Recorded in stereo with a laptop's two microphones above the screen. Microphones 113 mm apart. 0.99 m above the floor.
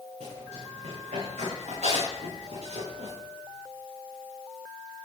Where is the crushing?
I don't hear crushing.